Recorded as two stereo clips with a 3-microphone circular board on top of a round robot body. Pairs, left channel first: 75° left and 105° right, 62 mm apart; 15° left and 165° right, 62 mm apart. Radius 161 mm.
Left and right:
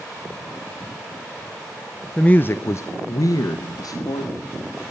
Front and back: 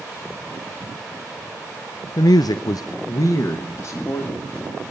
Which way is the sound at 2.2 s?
Straight ahead.